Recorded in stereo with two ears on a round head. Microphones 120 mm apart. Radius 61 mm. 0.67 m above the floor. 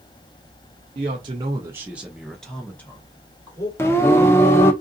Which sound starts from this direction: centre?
Singing, at 3.8 s.